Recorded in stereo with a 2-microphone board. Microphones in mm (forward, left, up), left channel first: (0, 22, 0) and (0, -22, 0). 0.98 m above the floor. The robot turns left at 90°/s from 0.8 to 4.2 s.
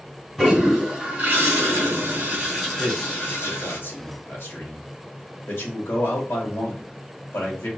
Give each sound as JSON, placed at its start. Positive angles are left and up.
{"t": 0.4, "sound": "a toilet flushing", "azimuth_deg": 0, "distance_m": 2.5}
{"t": 2.8, "sound": "a man speaking", "side_deg": -30, "distance_m": 3.5}